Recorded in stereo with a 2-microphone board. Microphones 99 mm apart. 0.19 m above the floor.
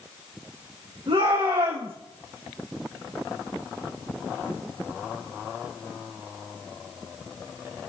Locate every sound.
1.1 s a shout: 55° right (ahead or behind), 8 m